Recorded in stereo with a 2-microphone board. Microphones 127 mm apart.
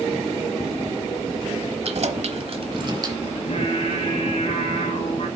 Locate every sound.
1.8 s keys jangling: 55° right (ahead or behind), 1.1 m; by 3.2 s 30° right (ahead or behind), 1.3 m
3.4 s singing: 55° left (ahead or behind), 2.5 m